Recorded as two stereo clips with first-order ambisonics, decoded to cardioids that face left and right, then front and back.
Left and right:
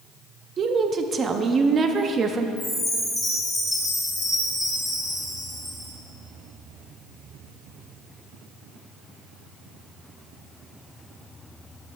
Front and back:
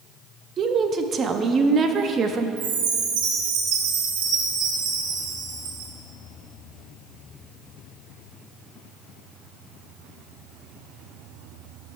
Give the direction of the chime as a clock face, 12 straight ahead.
6 o'clock.